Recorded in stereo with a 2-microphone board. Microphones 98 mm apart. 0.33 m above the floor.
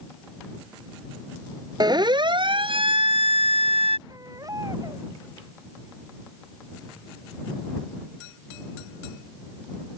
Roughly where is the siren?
Right.